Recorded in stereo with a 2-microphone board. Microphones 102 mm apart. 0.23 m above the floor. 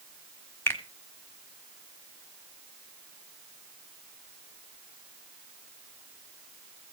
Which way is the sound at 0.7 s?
25° left (ahead or behind).